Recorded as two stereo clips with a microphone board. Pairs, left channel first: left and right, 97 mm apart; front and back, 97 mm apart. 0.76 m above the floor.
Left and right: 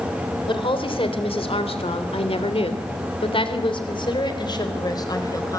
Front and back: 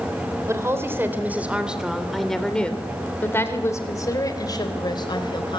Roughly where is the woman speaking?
Behind left.